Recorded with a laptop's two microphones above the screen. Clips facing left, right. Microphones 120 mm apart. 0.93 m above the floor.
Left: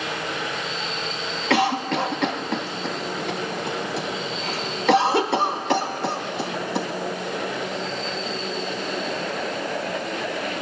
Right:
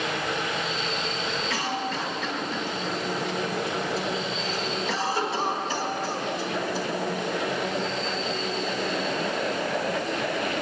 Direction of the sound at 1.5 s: 65° left (ahead or behind).